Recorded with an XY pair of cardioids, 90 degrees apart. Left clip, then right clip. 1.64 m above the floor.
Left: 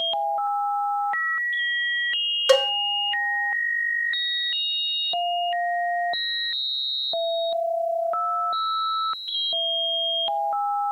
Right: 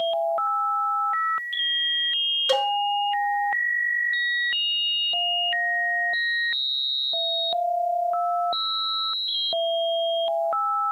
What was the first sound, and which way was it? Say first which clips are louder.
A cowbell: left 7 dB; 60° left.